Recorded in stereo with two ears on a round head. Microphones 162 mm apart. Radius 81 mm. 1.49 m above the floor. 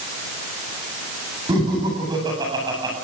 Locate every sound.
1.5 s laughter: 20° right (ahead or behind), 9 m